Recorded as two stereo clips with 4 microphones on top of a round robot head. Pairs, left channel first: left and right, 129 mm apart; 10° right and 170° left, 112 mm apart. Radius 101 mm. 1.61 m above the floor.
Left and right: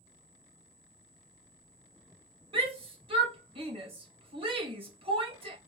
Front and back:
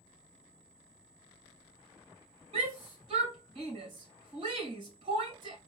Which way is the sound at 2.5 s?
140° right.